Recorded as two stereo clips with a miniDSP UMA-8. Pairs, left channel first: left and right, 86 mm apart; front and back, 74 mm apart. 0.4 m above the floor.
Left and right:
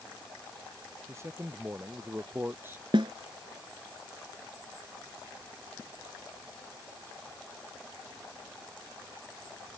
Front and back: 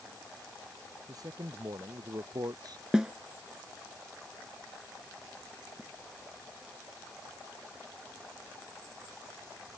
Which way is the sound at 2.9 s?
100° right.